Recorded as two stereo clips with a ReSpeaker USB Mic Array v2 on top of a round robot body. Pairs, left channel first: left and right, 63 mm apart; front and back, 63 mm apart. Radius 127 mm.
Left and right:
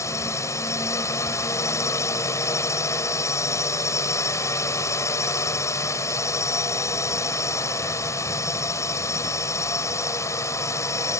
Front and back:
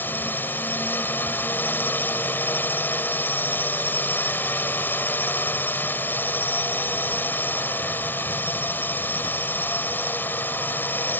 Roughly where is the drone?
Ahead left.